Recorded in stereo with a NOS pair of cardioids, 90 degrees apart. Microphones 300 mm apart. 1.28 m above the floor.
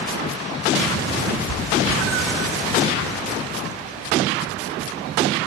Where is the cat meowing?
65° right, 3 m.